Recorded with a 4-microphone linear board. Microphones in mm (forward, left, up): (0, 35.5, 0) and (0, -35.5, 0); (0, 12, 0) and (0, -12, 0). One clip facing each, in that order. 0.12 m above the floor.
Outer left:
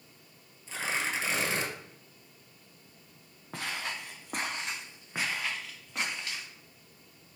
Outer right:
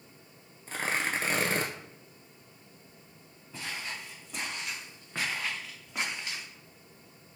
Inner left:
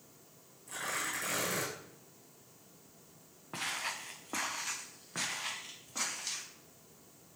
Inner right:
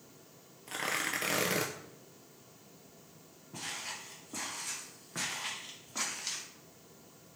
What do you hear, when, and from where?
0.7 s tearing paper: 55° right (ahead or behind), 0.6 m
3.5 s footsteps: 75° left (ahead or behind), 0.8 m; by 6.5 s 15° right (ahead or behind), 1.6 m